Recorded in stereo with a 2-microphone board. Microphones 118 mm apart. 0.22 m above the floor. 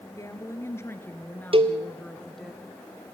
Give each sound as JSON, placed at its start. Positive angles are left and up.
{"t": 0.2, "sound": "a woman speaking", "side_deg": 25, "distance_m": 3.0}
{"t": 1.5, "sound": "a cowbell", "side_deg": -50, "distance_m": 1.4}